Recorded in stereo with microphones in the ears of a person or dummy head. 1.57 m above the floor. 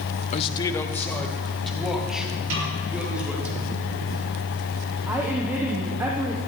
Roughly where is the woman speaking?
Centre.